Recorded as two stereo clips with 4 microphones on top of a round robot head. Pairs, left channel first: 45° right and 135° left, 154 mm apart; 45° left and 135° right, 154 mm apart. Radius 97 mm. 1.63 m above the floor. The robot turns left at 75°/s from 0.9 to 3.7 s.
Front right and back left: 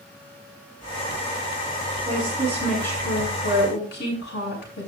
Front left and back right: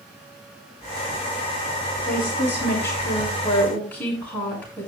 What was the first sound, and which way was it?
A woman speaking, 90° left.